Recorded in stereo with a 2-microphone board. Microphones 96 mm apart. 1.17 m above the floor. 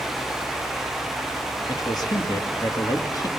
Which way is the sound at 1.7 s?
40° left (ahead or behind).